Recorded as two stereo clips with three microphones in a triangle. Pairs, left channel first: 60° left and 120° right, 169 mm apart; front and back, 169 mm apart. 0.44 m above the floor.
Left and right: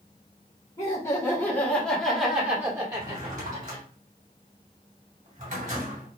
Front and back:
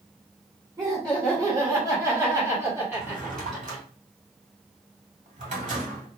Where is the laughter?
120° left, 1.5 m; by 3.8 s 100° right, 1.3 m.